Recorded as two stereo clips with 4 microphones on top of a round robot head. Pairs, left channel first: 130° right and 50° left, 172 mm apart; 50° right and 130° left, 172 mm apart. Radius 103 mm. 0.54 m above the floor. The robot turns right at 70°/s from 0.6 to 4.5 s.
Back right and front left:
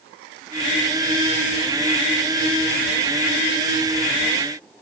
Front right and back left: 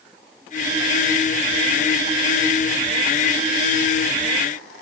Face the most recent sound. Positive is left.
No sound to turn to.